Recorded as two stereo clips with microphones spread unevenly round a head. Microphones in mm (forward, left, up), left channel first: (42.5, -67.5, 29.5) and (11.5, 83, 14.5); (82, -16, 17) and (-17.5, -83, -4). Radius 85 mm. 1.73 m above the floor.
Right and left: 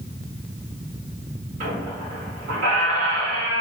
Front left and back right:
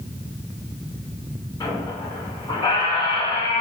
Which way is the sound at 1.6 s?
80° left.